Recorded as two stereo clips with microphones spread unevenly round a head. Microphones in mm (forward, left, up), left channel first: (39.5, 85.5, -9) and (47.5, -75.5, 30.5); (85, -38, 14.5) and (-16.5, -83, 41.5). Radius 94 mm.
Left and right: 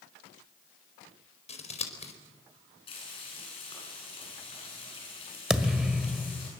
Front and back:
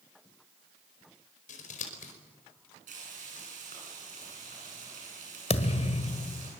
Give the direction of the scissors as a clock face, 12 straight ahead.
11 o'clock.